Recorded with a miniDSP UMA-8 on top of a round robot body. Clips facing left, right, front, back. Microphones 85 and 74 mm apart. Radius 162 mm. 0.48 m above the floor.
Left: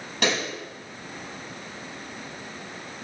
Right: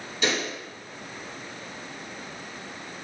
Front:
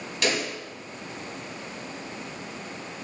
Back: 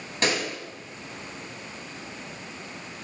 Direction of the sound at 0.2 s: 125° left.